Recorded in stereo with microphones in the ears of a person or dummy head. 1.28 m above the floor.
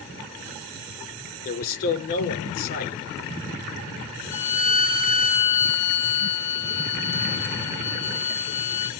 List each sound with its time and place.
1.4 s a man speaking: 55° left (ahead or behind), 4.5 m
4.3 s a violin: 60° left (ahead or behind), 2.5 m